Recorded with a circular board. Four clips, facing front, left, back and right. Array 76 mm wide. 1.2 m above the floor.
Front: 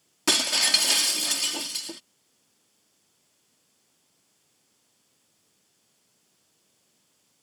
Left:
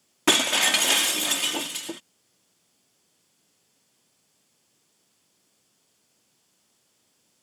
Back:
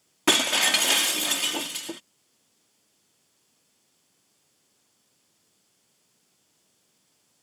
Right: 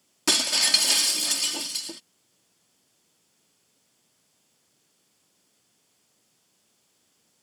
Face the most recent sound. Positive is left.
turn(degrees=125)